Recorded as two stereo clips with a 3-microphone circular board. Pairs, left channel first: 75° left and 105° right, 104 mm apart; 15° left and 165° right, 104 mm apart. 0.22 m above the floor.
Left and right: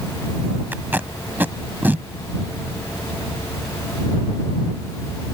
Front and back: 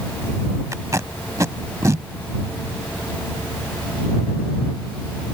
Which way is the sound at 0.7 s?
155° right.